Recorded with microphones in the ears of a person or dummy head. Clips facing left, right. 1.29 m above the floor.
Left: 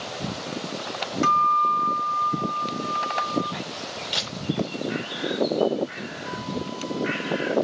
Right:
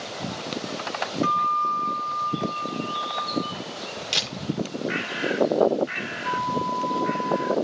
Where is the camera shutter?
35° right (ahead or behind), 10 m.